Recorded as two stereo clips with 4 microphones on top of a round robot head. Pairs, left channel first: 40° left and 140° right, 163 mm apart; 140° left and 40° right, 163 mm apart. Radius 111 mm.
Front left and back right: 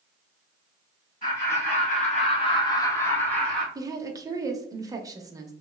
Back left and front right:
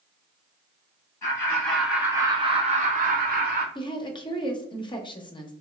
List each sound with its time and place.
1.2 s laughter: 70° left, 1.4 m; by 3.6 s 45° right, 1.7 m
3.8 s a woman speaking: 170° left, 0.7 m